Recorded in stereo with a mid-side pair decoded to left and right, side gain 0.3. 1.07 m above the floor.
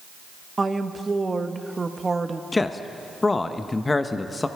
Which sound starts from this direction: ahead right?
A woman speaking, at 0.6 s.